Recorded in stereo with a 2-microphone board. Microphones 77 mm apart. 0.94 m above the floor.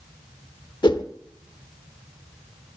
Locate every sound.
0.8 s a whoosh: 75° left (ahead or behind), 1.2 m